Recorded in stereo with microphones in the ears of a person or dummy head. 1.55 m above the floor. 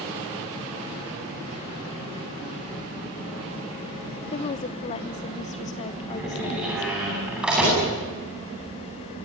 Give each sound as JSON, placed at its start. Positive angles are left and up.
{"t": 4.3, "sound": "a woman speaking", "side_deg": 20, "distance_m": 0.5}
{"t": 6.1, "sound": "a door slam", "side_deg": -10, "distance_m": 9.5}